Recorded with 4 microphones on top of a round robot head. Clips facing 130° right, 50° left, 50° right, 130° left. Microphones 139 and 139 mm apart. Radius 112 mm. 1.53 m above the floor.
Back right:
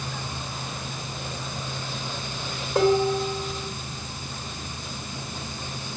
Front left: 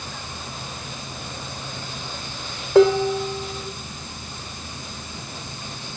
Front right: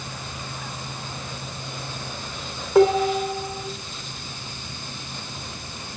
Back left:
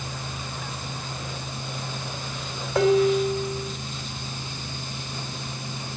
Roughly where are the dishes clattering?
Ahead.